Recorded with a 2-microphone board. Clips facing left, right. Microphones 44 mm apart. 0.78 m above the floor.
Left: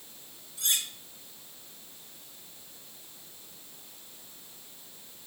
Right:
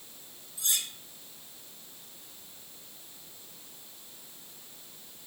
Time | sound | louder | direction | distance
0.6 | cutlery clinking | left 2 dB | 65° left (ahead or behind) | 5.5 m